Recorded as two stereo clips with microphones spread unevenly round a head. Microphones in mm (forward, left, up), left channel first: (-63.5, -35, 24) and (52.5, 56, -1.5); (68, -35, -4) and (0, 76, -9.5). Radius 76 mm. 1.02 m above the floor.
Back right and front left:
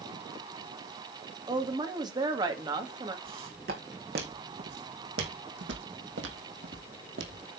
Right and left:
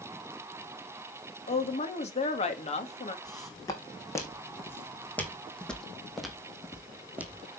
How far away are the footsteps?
About 3.5 m.